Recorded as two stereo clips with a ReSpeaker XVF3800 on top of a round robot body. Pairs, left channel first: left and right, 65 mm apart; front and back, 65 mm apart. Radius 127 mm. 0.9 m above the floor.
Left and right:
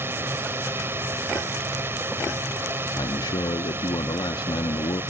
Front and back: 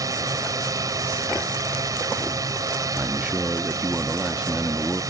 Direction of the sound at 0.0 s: 150° right.